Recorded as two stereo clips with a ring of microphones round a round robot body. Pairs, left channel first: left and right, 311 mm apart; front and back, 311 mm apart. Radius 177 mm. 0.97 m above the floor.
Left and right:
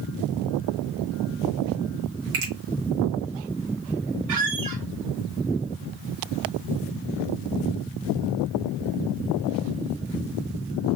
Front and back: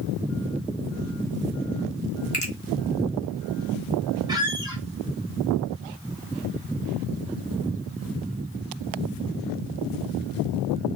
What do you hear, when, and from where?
2.3 s a finger snap: 65° right, 2.5 m
4.3 s a squeak: 105° right, 1.1 m